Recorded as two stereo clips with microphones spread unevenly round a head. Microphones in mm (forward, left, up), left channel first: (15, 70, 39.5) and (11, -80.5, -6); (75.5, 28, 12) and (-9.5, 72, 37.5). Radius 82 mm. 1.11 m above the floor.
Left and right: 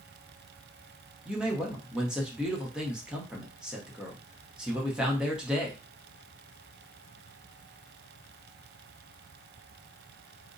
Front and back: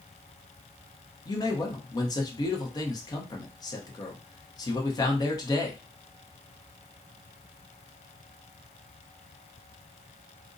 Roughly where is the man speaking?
Ahead.